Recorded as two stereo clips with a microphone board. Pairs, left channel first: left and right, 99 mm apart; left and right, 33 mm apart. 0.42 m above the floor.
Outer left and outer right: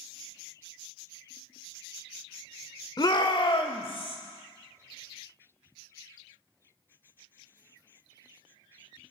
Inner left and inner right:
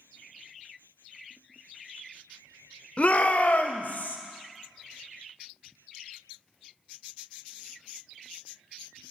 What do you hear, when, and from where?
3.0 s a shout: 40° left (ahead or behind), 1.0 m; by 4.2 s 60° left (ahead or behind), 2 m